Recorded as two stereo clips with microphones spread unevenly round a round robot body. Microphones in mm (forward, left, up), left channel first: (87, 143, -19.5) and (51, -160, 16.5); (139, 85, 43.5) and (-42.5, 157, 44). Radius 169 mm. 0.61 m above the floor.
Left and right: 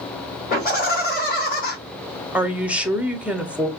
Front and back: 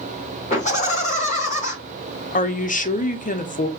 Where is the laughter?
30° left, 2.5 m.